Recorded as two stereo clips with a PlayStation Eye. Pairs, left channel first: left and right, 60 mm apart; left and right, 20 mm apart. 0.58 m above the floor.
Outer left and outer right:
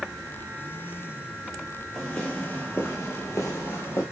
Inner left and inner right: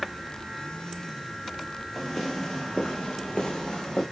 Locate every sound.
1.9 s footsteps: 10° left (ahead or behind), 0.9 m; by 4.0 s 65° left (ahead or behind), 1.2 m